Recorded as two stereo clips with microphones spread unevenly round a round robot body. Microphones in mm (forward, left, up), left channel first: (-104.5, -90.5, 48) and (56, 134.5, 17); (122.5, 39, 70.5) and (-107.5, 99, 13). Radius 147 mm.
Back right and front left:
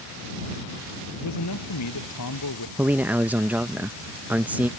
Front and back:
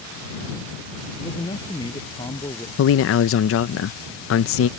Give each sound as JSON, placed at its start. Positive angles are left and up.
{"t": 1.1, "sound": "a man speaking", "azimuth_deg": -90}
{"t": 2.8, "sound": "a man speaking", "azimuth_deg": -20}